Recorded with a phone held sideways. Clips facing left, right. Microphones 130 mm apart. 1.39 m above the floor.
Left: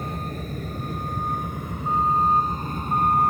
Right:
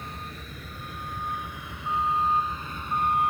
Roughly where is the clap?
I don't hear a clap.